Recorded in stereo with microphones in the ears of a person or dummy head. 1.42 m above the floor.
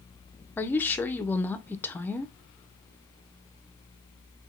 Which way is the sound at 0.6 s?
5° left (ahead or behind).